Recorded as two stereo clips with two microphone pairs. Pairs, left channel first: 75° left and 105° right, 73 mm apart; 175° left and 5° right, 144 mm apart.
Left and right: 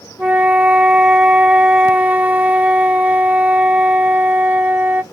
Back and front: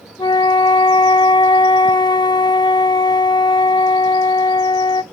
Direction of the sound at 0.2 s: 160° right.